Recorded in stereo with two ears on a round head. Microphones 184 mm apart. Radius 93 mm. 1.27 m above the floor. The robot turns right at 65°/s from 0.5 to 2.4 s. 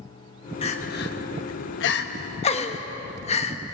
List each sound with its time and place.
0.6 s crying: 30° left (ahead or behind), 1.2 m; by 3.6 s 35° left (ahead or behind), 1.2 m